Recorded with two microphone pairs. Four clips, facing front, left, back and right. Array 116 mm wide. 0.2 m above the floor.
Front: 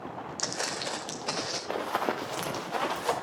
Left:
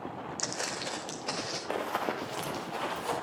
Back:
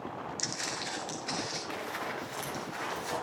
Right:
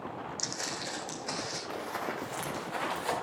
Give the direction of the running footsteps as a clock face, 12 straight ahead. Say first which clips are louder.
Left 5 dB, front 11 dB; 10 o'clock.